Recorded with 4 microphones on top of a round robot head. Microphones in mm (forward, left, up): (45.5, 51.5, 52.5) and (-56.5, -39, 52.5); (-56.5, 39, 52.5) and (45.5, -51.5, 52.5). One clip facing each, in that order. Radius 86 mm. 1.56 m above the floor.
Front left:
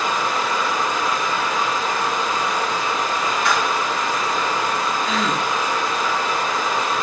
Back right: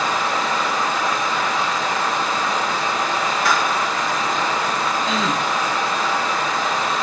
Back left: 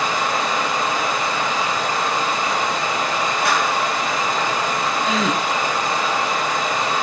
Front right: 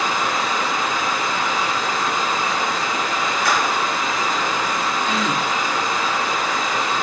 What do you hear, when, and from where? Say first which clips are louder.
0.0 s running water: back right 1 dB, back left 1 dB; 175° right, 5 m
3.5 s a clap: back right 1 dB, front right 1 dB; 175° left, 4.5 m
5.0 s a gasp: even, back left 3 dB; 155° left, 1.5 m